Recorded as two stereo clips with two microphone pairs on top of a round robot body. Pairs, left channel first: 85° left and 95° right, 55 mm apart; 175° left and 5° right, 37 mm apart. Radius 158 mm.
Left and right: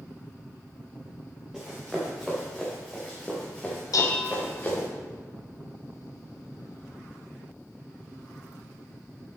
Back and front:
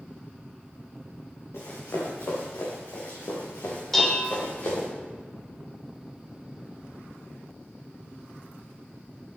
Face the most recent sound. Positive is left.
turn(degrees=95)